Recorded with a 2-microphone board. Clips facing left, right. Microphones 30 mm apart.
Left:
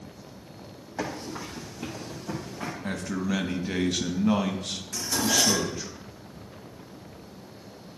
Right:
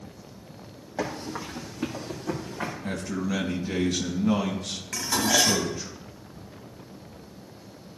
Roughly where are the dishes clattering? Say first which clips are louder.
Right 2 dB; right.